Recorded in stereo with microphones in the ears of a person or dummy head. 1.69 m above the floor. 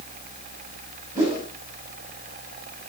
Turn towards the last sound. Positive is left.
turn(degrees=-15)  # may be behind; listen again after turning